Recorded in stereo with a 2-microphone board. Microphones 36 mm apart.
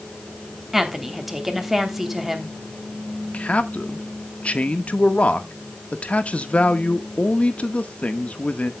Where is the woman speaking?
5° right (ahead or behind), 3 m.